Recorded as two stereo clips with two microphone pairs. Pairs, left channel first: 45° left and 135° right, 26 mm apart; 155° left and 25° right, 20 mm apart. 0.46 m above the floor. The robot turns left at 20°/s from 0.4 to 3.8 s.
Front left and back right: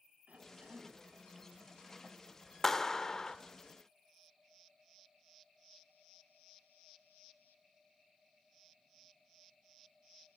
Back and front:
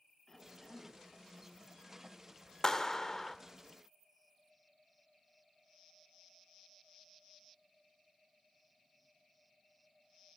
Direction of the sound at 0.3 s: 135° right.